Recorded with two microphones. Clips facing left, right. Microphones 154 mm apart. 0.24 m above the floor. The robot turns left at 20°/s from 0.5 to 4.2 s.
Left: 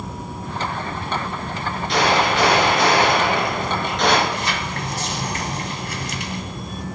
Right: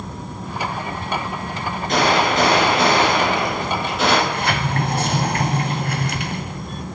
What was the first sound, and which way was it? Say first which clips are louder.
A gunshot: right 1 dB; 130° right.